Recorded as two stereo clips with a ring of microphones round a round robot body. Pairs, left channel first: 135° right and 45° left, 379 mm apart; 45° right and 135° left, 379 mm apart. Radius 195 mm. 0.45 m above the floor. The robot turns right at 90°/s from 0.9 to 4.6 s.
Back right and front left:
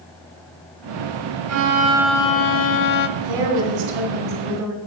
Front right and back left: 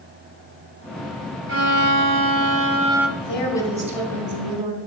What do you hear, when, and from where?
1.5 s a violin: 80° left, 0.7 m; by 3.1 s 135° right, 0.7 m
3.2 s a woman speaking: straight ahead, 2.5 m; by 4.8 s 130° left, 2.5 m